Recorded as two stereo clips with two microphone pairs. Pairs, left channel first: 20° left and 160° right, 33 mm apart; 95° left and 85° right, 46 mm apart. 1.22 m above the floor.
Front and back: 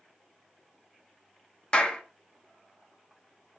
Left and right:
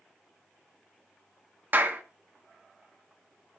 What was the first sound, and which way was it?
A clap, 40° right.